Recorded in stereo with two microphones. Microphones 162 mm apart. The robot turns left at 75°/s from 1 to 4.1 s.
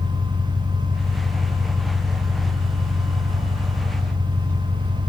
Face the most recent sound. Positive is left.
turn(degrees=15)